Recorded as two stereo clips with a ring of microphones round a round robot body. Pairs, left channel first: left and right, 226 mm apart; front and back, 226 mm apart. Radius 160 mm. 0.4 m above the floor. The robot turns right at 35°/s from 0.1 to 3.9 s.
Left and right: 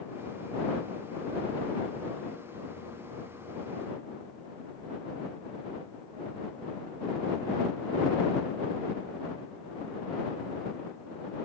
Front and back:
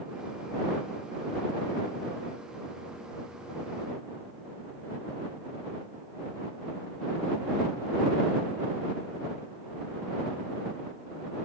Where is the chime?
I don't hear a chime.